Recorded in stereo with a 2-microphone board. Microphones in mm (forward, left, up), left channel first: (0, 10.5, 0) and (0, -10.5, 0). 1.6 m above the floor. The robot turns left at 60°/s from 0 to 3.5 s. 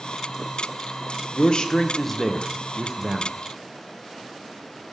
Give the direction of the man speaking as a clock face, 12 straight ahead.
10 o'clock.